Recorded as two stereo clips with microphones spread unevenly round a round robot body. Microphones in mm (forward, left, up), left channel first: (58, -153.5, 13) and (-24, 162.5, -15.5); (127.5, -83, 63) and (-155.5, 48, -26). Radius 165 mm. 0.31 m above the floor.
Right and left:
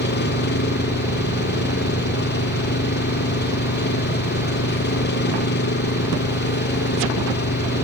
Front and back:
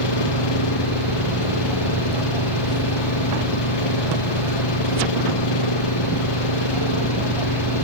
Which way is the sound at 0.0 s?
15° right.